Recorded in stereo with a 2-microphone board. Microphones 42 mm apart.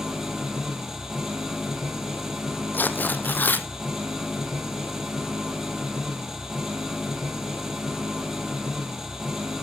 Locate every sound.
0.0 s an engine running: 10° right (ahead or behind), 2 m
2.7 s tearing paper: 50° left (ahead or behind), 0.8 m